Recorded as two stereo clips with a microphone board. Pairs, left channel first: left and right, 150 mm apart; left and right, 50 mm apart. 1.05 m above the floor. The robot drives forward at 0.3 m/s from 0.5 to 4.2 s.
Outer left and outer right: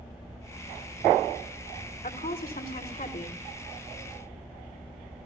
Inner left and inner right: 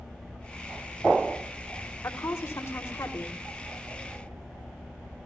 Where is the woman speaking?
75° left (ahead or behind), 4.5 m; by 3.4 s 70° left (ahead or behind), 5 m.